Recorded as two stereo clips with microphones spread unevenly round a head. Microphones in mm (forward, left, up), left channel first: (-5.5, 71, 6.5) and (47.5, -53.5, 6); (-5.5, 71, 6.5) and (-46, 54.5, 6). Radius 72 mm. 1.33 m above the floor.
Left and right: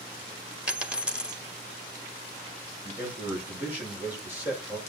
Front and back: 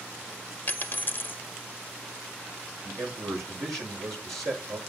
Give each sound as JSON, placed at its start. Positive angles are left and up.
{"t": 0.7, "sound": "a dropped coin", "azimuth_deg": 15, "distance_m": 1.1}
{"t": 2.8, "sound": "a man speaking", "azimuth_deg": -145, "distance_m": 6.0}